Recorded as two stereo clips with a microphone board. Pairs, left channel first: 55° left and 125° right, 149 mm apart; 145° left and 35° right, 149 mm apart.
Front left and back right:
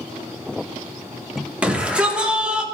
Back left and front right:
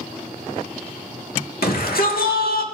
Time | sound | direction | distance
1.6 | a shout | 155° left | 2 m